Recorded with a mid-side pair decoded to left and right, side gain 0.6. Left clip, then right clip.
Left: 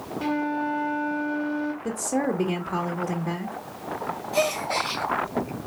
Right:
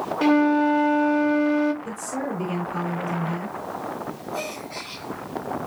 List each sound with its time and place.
0.2 s a flute: 45° right, 1.1 m
1.8 s a woman speaking: 40° left, 2.5 m
4.3 s a gasp: 60° left, 1.9 m